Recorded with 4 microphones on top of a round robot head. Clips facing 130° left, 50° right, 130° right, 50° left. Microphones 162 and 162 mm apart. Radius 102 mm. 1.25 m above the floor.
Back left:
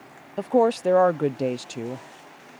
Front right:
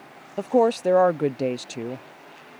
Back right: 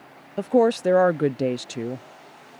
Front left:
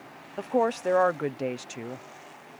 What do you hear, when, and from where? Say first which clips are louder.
0.4 s a woman speaking: even, back right 7 dB; 135° right